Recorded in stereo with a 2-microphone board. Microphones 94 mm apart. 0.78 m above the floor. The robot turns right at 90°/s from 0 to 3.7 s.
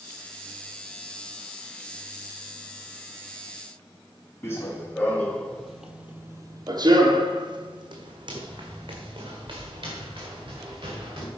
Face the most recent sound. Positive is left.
turn(degrees=-50)  # may be behind; listen again after turning